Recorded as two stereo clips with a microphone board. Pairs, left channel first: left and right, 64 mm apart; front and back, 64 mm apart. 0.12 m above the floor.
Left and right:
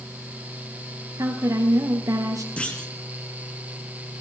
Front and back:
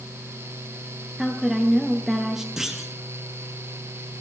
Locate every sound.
1.2 s a woman speaking: 95° right, 2 m
2.6 s a clunk: 110° left, 1.5 m